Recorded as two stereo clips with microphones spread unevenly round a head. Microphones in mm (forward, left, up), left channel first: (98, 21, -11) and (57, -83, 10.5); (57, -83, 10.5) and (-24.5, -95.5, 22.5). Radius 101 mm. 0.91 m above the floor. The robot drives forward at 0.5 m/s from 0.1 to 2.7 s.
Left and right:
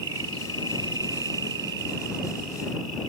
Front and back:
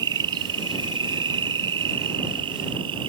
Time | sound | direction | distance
0.0 | an insect | 170° right | ?